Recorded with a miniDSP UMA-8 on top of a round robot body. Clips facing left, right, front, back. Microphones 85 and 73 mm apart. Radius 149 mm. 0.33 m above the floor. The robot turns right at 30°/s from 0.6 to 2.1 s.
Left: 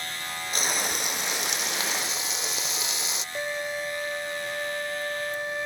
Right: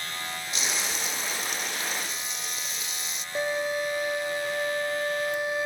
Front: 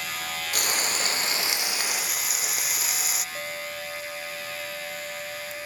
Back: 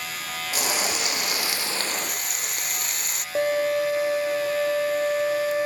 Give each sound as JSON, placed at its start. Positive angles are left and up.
{"t": 0.5, "sound": "frying", "azimuth_deg": 45}
{"t": 3.4, "sound": "a violin", "azimuth_deg": -170}